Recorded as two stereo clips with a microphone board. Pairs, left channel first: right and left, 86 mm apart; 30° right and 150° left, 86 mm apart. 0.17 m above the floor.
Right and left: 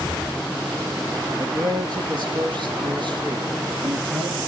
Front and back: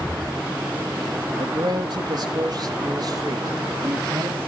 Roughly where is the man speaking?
Behind left.